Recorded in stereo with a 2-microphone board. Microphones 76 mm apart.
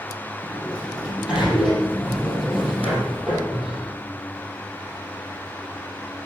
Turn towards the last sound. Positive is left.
turn(degrees=-10)  # may be behind; listen again after turning